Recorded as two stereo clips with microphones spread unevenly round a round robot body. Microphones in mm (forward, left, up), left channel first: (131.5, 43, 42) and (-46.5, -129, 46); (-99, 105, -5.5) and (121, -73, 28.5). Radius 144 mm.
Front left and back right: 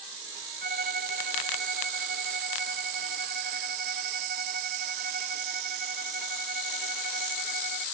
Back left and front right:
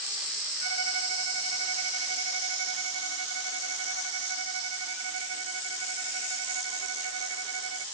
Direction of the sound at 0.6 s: 85° right.